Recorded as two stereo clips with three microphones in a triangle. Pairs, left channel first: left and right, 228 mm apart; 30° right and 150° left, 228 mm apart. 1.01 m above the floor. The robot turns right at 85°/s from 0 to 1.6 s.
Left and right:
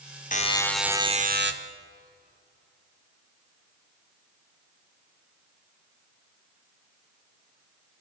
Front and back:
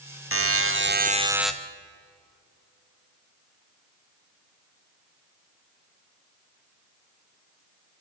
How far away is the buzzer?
About 1.1 m.